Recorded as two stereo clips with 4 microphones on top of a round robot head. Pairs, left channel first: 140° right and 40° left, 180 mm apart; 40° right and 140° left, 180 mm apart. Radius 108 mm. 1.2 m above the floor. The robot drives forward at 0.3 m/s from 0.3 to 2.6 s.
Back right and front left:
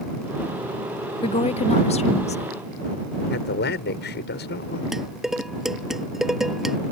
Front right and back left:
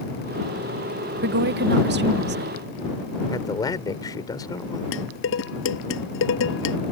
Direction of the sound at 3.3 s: 110° right.